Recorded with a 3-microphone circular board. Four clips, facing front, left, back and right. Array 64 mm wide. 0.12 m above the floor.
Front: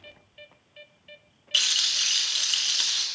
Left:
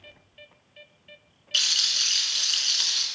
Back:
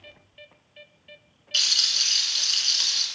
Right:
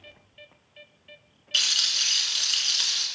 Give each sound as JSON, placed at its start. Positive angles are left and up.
{"t": 1.5, "sound": "a rattle", "azimuth_deg": -10, "distance_m": 0.7}